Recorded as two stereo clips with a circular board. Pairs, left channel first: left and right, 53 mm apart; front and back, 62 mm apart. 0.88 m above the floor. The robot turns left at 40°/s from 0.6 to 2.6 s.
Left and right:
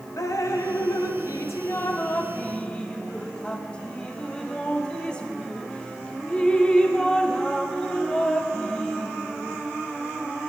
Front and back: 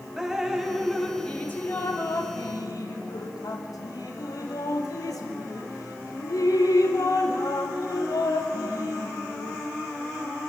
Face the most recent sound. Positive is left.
turn(degrees=15)